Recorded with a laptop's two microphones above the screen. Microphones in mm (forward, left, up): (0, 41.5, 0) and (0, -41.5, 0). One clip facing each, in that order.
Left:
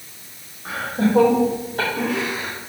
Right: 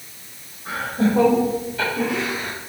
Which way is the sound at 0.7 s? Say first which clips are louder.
Even; 55° left (ahead or behind).